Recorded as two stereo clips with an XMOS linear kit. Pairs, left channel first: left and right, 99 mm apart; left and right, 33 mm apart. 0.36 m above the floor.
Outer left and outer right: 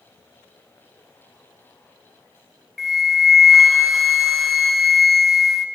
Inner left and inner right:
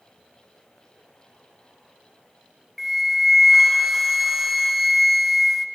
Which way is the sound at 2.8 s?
5° right (ahead or behind).